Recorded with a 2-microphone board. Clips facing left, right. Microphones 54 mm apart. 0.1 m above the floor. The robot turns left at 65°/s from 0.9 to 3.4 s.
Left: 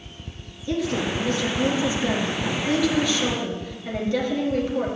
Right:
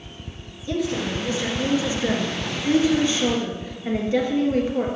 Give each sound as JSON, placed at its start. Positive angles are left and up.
{"t": 0.7, "sound": "a woman speaking", "azimuth_deg": 10, "distance_m": 1.4}